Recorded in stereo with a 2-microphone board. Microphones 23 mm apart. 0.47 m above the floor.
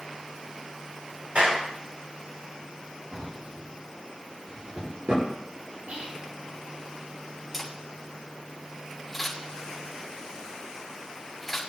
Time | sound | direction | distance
1.4 | a clap | 60° right (ahead or behind) | 6.5 m
3.1 | a drawer | 50° right (ahead or behind) | 4.5 m
5.9 | whispering | 65° right (ahead or behind) | 4 m
7.5 | a camera shutter | 5° right (ahead or behind) | 6 m